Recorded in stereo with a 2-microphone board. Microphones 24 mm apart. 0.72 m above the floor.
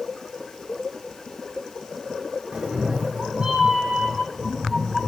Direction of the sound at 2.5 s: 50° right (ahead or behind).